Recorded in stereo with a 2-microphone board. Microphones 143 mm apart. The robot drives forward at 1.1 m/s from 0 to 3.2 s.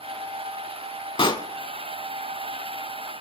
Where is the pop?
35° left (ahead or behind), 0.6 m; by 1.5 s 30° left (ahead or behind), 0.7 m.